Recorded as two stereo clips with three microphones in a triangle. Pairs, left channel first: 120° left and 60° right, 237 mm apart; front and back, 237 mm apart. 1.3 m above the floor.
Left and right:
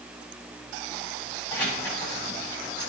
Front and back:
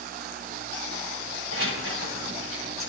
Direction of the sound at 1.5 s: 160° right.